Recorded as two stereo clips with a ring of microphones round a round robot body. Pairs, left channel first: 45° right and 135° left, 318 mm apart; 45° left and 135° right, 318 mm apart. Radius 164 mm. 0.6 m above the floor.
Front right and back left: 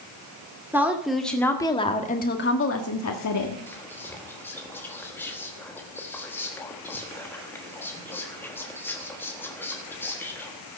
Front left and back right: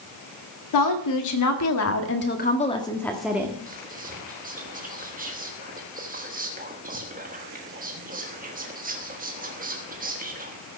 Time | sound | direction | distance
0.7 | a woman speaking | 50° left | 2 m
3.7 | whispering | 120° right | 1.3 m